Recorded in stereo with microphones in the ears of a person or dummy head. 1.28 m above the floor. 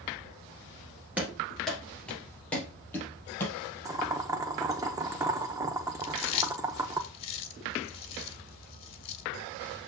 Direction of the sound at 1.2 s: 5° right (ahead or behind).